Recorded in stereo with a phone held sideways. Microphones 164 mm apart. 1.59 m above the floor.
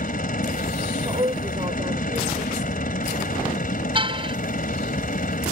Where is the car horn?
35° right (ahead or behind).